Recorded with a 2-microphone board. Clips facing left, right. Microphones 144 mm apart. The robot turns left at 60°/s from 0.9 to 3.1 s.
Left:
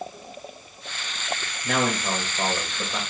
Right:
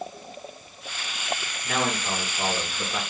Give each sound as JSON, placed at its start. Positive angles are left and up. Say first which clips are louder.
{"t": 1.6, "sound": "a man speaking", "louder": "left 3 dB", "azimuth_deg": 90, "distance_m": 1.7}